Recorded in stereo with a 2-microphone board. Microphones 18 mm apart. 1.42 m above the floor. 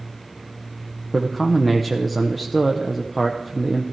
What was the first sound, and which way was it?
A man speaking, centre (ahead or behind).